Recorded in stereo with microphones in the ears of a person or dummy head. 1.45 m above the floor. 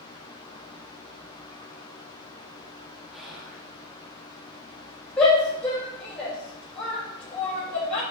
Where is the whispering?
Centre (ahead or behind), 3.5 m.